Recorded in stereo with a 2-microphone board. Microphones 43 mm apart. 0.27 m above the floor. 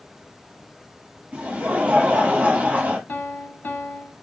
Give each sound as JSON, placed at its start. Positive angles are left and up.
{"t": 1.3, "sound": "laughter", "side_deg": -40, "distance_m": 2.0}
{"t": 3.1, "sound": "a piano", "side_deg": 55, "distance_m": 0.6}